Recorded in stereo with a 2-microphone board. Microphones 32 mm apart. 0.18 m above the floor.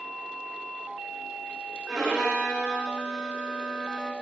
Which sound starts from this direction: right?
A violin, at 1.9 s.